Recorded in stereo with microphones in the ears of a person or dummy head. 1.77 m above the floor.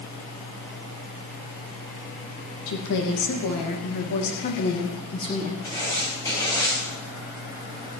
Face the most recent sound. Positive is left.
turn(degrees=20)  # may be behind; listen again after turning